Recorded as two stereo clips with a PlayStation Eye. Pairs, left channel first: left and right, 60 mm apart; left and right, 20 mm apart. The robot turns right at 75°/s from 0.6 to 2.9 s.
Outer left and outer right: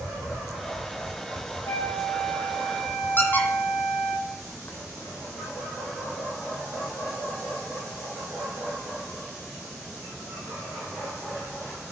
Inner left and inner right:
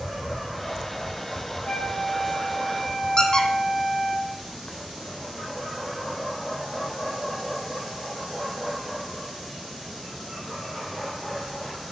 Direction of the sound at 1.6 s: 75° left.